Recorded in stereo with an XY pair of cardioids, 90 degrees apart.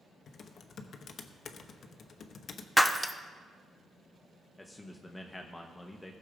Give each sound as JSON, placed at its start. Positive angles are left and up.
{"t": 0.3, "sound": "typing on a keyboard", "azimuth_deg": 55, "distance_m": 0.9}
{"t": 2.8, "sound": "breaking glass", "azimuth_deg": -5, "distance_m": 0.8}
{"t": 4.6, "sound": "a man speaking", "azimuth_deg": 15, "distance_m": 0.9}